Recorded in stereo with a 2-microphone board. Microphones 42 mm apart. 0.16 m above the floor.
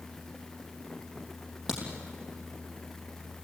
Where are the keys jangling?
I don't hear keys jangling.